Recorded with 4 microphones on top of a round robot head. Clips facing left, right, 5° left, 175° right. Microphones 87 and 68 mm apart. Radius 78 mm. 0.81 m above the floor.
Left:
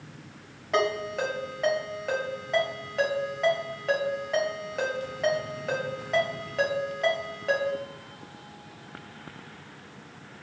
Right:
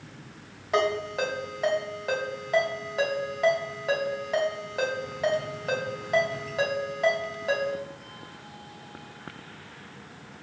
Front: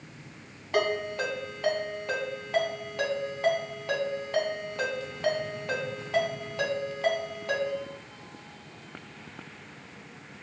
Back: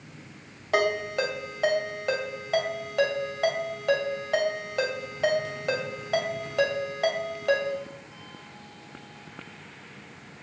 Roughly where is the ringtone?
Behind.